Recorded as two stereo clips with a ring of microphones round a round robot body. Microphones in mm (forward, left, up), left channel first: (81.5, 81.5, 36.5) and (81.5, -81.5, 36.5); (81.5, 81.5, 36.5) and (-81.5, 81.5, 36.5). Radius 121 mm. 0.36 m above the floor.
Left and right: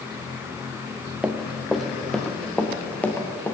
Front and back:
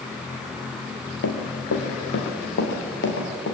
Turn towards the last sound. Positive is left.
turn(degrees=10)